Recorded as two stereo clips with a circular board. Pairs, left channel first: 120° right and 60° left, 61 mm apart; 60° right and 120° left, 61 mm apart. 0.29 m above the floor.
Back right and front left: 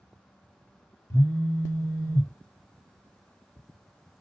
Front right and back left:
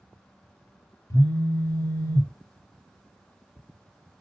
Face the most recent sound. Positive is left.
turn(degrees=-85)